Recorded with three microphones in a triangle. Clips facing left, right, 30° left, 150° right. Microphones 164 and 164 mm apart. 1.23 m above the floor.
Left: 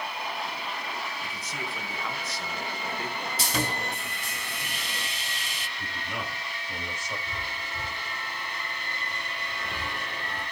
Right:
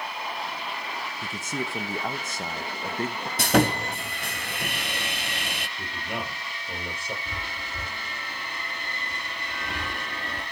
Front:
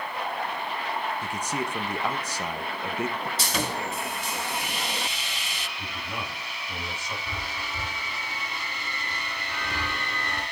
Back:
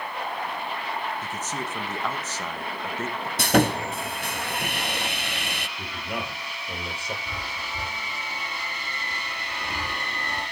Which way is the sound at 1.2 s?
50° right.